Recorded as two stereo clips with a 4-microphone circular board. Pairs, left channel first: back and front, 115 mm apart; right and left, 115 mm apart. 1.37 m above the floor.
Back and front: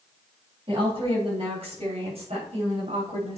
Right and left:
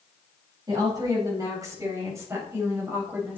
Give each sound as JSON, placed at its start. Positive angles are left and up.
{"t": 0.7, "sound": "a woman speaking", "azimuth_deg": 35, "distance_m": 9.0}